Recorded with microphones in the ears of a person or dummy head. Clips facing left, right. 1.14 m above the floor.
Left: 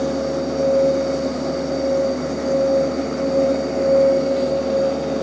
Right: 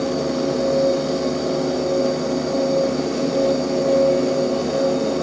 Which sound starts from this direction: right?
A machine running, at 0.0 s.